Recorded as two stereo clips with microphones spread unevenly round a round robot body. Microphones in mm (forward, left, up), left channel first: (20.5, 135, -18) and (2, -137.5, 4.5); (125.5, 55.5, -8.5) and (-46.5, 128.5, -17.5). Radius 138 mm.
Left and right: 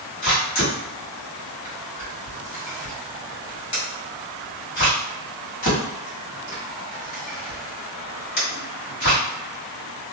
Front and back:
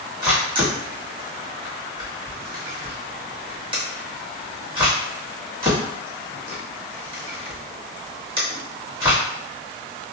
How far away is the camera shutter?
About 1.6 m.